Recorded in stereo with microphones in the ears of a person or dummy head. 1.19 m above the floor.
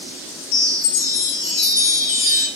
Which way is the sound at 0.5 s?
80° left.